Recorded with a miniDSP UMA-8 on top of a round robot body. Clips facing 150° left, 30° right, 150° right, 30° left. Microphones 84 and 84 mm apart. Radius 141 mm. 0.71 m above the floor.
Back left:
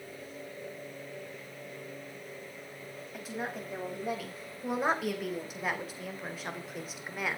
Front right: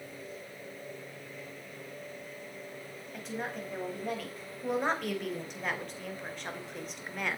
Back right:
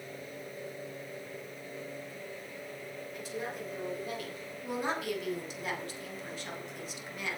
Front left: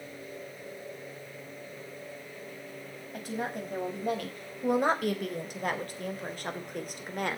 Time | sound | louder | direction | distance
3.1 | a woman speaking | even, front left 5 dB | 65° left | 5.5 m